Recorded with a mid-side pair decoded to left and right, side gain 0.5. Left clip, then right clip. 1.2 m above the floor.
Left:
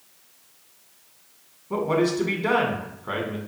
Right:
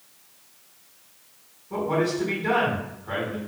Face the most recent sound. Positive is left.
turn(degrees=60)